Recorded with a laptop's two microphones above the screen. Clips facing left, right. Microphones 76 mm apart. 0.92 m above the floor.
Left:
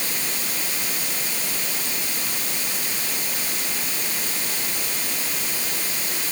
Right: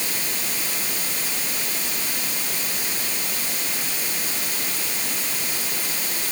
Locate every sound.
Only background noise.